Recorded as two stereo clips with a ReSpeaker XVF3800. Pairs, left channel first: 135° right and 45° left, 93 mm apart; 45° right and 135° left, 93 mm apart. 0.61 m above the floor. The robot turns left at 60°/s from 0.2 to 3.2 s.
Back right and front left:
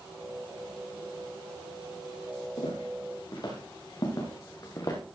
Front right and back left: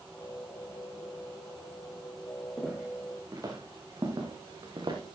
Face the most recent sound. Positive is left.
turn(degrees=175)